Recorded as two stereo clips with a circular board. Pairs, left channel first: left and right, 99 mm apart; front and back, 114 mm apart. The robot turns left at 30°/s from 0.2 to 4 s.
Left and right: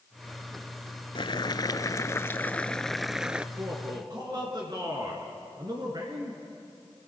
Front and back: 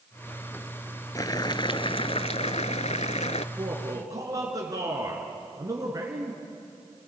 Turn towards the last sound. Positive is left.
turn(degrees=-125)